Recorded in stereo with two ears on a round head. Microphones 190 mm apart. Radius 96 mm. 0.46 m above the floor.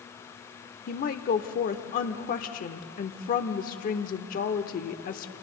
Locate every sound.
0.9 s a woman speaking: 40° left (ahead or behind), 0.9 m